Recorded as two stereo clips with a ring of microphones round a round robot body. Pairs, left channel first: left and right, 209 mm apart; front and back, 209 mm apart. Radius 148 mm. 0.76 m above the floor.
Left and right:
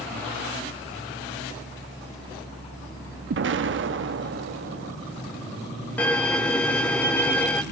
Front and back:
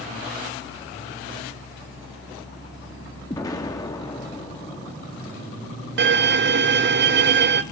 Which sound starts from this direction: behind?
A violin, at 6.0 s.